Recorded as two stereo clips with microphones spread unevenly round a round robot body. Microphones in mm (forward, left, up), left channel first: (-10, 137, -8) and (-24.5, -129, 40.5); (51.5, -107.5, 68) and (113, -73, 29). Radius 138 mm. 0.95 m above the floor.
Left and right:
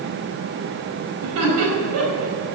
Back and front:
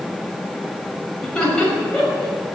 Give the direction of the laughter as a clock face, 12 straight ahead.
3 o'clock.